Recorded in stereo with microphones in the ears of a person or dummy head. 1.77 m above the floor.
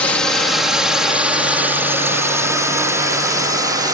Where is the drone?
5° left (ahead or behind); by 4.0 s 20° right (ahead or behind).